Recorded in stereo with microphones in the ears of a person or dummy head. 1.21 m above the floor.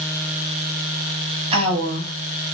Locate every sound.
1.5 s a woman speaking: 30° right (ahead or behind), 1.1 m